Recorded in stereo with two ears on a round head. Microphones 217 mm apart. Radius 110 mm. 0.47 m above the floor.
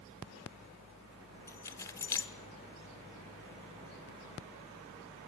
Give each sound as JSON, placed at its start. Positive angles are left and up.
{"t": 1.5, "sound": "keys jangling", "side_deg": 10, "distance_m": 0.9}